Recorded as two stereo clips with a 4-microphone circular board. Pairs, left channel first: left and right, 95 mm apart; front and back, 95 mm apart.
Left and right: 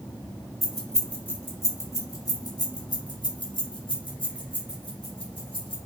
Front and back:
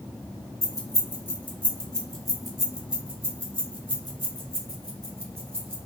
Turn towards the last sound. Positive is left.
turn(degrees=115)